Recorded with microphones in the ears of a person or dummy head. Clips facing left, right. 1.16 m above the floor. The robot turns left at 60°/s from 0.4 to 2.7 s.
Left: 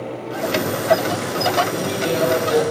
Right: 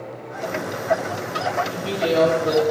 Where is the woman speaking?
75° right, 1.5 m; by 2.6 s 130° right, 1.5 m.